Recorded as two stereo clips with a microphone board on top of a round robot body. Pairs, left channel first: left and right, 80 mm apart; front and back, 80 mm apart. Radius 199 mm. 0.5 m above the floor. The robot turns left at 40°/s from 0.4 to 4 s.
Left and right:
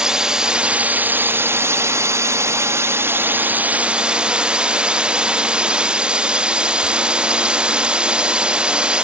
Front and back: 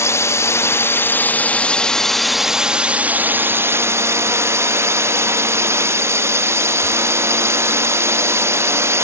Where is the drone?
15° right; by 9.1 s 160° right.